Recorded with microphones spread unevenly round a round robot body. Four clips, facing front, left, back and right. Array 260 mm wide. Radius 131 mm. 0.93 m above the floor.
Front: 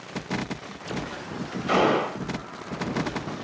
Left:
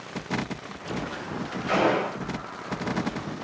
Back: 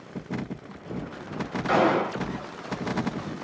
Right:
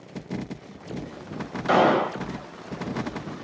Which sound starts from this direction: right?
A gunshot, at 1.7 s.